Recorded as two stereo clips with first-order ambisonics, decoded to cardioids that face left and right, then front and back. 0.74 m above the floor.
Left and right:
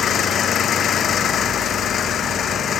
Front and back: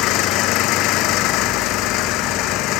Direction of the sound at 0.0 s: 30° left.